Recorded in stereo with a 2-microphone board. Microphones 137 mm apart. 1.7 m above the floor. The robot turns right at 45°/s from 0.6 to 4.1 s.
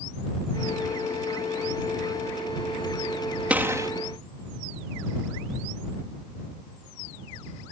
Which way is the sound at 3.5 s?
10° right (ahead or behind).